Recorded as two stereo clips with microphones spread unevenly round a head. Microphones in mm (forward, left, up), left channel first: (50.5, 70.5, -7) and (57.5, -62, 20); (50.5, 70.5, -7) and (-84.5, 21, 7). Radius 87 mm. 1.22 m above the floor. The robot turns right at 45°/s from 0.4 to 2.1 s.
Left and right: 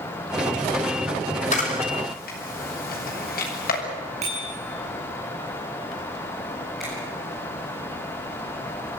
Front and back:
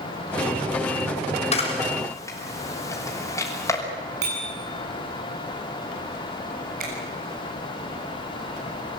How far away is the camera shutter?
About 5.5 m.